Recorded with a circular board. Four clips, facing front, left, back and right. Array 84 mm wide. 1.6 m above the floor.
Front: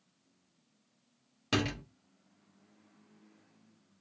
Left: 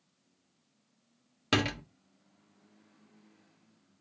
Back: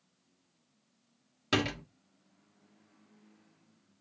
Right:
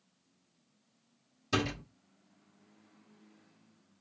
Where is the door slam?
95° left, 1.3 m.